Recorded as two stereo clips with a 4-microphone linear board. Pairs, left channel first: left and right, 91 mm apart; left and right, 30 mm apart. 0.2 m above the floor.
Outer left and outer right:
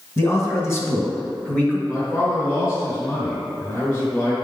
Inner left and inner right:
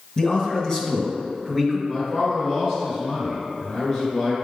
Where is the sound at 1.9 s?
25° left (ahead or behind), 1.8 m.